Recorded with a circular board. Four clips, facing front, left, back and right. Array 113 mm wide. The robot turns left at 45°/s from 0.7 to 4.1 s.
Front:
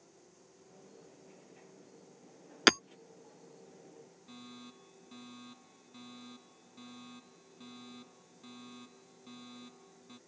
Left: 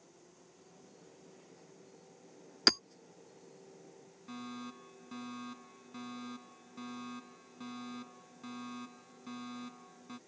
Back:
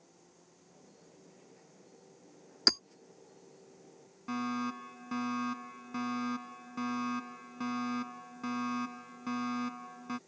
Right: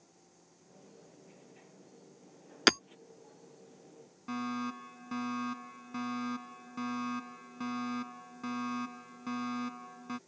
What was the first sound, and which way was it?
Hammering, 30° right.